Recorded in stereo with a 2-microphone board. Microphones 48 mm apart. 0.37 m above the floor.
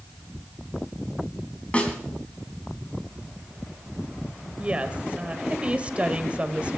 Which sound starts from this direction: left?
A snare drum, at 1.7 s.